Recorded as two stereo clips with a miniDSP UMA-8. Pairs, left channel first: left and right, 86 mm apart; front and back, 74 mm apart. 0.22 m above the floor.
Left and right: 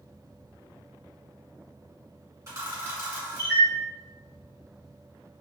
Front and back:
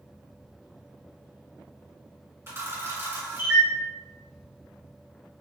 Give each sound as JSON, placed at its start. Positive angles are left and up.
{"t": 2.5, "sound": "a camera shutter", "azimuth_deg": -140, "distance_m": 1.9}